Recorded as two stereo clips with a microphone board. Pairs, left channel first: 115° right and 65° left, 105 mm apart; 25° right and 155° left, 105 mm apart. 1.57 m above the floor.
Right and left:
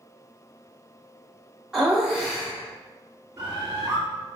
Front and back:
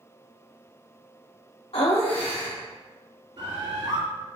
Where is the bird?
125° left, 1.6 m.